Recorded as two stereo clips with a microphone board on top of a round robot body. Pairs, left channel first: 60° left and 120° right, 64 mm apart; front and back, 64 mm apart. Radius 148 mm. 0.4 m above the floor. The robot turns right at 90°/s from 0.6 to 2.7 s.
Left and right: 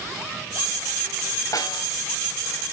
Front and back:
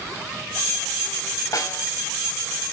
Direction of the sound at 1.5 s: 35° left.